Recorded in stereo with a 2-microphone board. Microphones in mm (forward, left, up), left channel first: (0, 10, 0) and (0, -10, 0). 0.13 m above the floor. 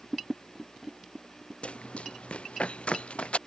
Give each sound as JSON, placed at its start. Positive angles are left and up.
{"t": 1.6, "sound": "running footsteps", "side_deg": 80}